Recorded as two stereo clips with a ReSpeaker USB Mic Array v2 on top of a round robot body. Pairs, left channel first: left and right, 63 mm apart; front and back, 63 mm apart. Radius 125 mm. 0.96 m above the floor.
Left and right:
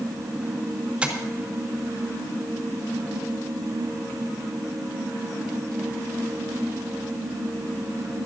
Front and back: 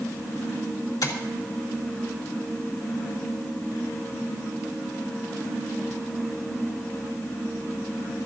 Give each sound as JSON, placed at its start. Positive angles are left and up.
{"t": 1.0, "sound": "tapping", "azimuth_deg": -15, "distance_m": 2.5}